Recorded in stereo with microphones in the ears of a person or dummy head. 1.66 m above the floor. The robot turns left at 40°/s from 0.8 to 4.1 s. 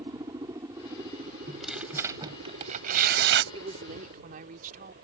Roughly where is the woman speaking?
Right.